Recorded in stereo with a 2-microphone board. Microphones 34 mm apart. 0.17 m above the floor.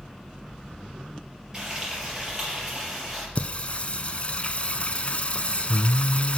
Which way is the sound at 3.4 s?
40° left (ahead or behind).